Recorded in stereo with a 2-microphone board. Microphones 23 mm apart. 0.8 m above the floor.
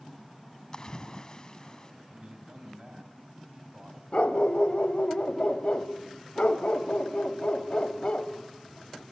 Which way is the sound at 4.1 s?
50° left (ahead or behind).